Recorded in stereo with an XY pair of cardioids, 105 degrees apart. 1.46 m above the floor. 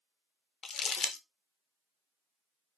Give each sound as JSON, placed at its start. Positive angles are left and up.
{"t": 0.6, "sound": "crumpling", "azimuth_deg": 50, "distance_m": 0.5}